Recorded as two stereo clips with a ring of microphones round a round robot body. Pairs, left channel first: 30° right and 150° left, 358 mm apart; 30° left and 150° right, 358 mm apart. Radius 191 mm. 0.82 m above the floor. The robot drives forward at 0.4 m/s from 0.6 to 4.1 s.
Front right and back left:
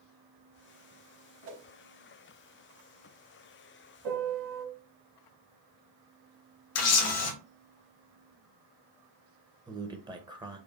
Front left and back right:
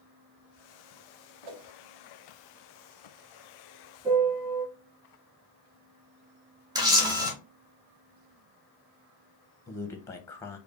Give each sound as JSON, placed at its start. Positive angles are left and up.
{"t": 1.4, "sound": "a whoosh", "azimuth_deg": -155, "distance_m": 1.2}
{"t": 4.0, "sound": "a piano", "azimuth_deg": 125, "distance_m": 1.2}
{"t": 6.8, "sound": "a camera shutter", "azimuth_deg": -70, "distance_m": 1.3}
{"t": 9.7, "sound": "a man speaking", "azimuth_deg": 100, "distance_m": 0.7}